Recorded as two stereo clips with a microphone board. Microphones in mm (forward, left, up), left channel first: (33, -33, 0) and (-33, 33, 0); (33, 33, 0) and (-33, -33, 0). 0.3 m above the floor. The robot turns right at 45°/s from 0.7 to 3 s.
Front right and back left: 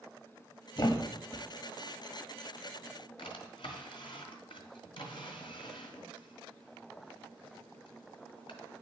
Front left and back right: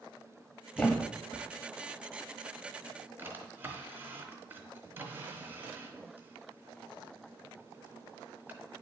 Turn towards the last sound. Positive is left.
turn(degrees=-65)